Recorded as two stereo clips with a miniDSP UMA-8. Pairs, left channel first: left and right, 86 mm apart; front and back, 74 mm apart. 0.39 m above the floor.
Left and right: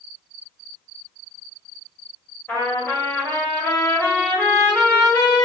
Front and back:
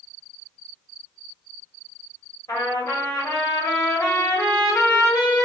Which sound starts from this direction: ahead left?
A trumpet, at 2.5 s.